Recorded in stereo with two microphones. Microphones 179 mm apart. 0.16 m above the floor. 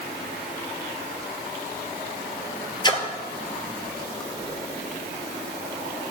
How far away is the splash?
About 0.9 m.